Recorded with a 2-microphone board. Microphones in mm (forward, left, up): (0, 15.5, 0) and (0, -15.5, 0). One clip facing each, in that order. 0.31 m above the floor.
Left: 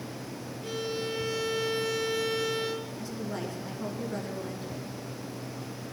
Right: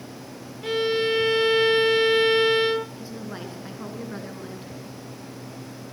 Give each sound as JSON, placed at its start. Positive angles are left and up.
{"t": 0.6, "sound": "a violin", "side_deg": -45, "distance_m": 0.5}
{"t": 3.0, "sound": "a woman speaking", "side_deg": -25, "distance_m": 4.0}